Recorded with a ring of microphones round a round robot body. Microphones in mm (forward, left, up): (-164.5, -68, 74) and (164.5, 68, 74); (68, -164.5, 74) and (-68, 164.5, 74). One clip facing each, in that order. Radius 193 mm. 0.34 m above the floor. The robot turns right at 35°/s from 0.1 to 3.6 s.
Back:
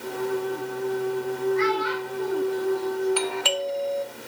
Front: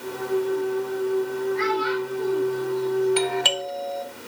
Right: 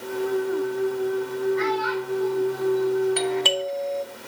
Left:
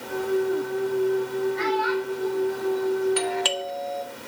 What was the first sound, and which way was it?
A child speaking, 55° left.